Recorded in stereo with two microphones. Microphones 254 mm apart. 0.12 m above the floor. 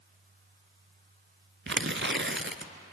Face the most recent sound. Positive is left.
turn(degrees=-50)  # may be behind; listen again after turning